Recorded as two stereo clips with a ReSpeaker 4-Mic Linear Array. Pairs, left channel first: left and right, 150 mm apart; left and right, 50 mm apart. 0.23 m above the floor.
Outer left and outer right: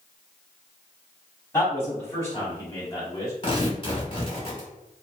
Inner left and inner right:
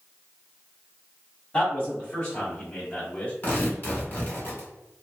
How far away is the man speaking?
About 1.9 m.